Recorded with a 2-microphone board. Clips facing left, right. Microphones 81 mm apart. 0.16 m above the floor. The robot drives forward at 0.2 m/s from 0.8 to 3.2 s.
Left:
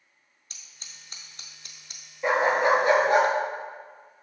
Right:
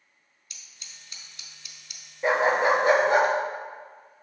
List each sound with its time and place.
0.5 s scissors: 40° left (ahead or behind), 0.6 m; by 2.0 s 35° left (ahead or behind), 0.7 m
2.2 s a dog barking: 20° right (ahead or behind), 1.0 m; by 3.3 s 25° right (ahead or behind), 0.8 m